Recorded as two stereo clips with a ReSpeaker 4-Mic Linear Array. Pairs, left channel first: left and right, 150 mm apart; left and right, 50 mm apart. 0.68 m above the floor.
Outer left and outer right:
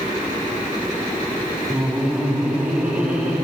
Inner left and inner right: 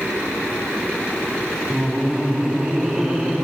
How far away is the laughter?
About 6 m.